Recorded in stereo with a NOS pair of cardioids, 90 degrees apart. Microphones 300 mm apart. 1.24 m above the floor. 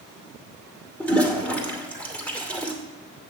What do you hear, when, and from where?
1.0 s a toilet flushing: 5° left, 2.5 m